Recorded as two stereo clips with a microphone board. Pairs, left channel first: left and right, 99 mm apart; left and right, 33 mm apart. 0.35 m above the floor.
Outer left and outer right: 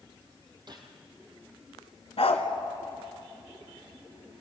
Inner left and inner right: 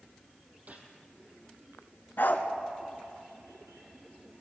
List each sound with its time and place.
0.7 s a gunshot: 50° right (ahead or behind), 3.5 m
2.2 s a dog barking: 80° left, 1.8 m